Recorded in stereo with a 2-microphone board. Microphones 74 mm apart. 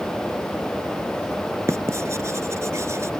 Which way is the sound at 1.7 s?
40° right (ahead or behind).